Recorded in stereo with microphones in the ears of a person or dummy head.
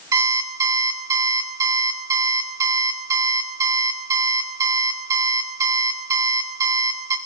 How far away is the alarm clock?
About 2.5 m.